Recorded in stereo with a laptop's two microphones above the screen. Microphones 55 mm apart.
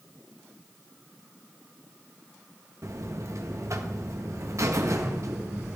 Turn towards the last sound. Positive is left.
turn(degrees=-60)  # may be behind; listen again after turning